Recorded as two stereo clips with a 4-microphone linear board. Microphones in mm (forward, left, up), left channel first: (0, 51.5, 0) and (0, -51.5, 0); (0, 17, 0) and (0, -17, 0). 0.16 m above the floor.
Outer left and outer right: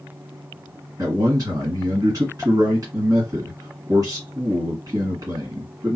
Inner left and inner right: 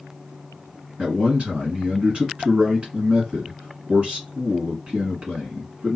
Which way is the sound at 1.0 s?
40° right (ahead or behind).